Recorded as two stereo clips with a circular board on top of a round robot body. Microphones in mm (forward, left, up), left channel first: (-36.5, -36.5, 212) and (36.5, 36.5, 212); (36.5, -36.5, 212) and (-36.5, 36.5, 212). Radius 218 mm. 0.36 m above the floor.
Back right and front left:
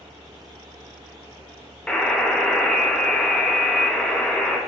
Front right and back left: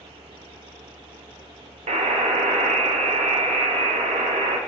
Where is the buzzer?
145° left, 0.6 m.